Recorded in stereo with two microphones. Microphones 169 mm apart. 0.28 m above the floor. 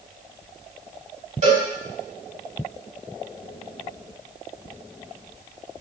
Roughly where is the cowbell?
Right.